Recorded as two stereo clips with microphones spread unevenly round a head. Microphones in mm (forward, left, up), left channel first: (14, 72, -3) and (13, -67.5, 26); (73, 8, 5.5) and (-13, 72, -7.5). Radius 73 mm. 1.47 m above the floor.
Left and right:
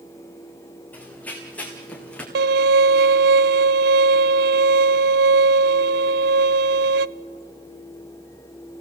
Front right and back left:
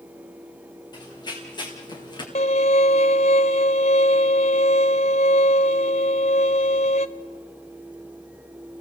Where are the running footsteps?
10° left, 5.5 m; by 2.2 s 5° left, 4.5 m.